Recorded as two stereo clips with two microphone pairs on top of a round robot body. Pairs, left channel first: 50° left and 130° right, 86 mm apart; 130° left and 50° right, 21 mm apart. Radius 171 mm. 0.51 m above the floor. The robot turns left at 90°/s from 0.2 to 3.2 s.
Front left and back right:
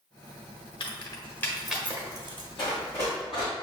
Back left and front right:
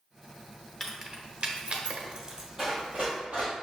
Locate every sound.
0.8 s keys jangling: 40° left, 0.8 m; by 2.5 s 115° right, 0.8 m
2.6 s running footsteps: 15° left, 1.2 m; by 3.5 s 40° right, 1.2 m